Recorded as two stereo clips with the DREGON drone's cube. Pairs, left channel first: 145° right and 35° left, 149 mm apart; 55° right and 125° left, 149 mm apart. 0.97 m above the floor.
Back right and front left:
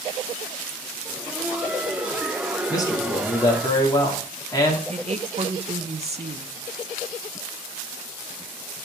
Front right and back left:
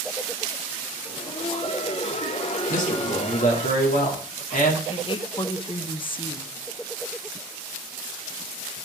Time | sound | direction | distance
1.1 | laughter | 45° right | 0.6 m
2.7 | a man speaking | 80° right | 2.5 m
4.9 | a woman speaking | 5° right | 0.7 m